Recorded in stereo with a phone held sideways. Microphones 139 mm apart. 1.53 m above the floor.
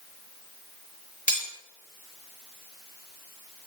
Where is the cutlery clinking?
75° left (ahead or behind), 4 m.